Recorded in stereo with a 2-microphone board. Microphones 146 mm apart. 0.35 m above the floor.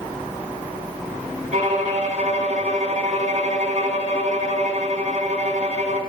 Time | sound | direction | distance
1.5 | a violin | 55° right (ahead or behind) | 1.5 m